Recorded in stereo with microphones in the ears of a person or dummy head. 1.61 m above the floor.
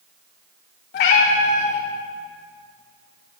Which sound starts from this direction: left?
A cat meowing, at 0.9 s.